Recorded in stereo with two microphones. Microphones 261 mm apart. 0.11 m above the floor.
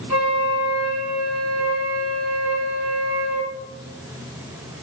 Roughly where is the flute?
Left.